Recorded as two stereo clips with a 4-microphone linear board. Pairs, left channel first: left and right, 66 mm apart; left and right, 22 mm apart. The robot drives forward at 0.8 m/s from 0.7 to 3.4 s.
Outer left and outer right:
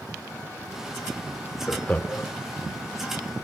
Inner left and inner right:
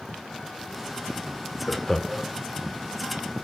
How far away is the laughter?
About 0.9 m.